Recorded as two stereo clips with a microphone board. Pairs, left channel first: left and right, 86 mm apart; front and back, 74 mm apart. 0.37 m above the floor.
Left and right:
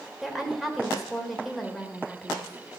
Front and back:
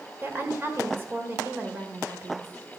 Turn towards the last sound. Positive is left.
turn(degrees=180)